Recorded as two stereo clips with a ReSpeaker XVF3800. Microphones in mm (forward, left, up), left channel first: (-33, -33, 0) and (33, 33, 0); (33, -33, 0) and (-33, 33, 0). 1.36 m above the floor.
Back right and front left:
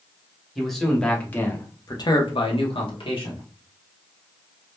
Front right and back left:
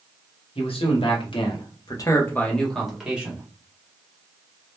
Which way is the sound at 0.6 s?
45° right.